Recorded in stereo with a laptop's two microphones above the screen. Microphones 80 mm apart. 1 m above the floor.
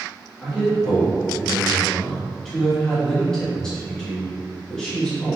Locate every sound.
0.4 s a man speaking: 10° left (ahead or behind), 0.7 m